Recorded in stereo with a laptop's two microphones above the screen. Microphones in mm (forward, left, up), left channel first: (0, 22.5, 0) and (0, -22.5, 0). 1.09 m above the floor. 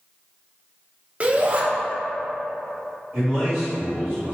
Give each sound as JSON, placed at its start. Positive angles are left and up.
{"t": 1.2, "sound": "a shout", "side_deg": -30, "distance_m": 0.7}
{"t": 3.1, "sound": "a man speaking", "side_deg": -20, "distance_m": 1.9}